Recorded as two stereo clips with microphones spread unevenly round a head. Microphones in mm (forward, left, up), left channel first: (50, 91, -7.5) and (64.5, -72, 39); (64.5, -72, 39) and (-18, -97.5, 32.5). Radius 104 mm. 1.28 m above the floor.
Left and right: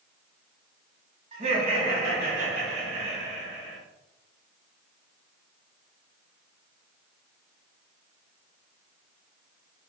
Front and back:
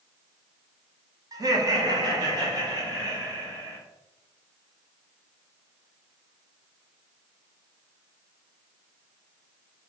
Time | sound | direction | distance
1.3 | laughter | 145° right | 0.7 m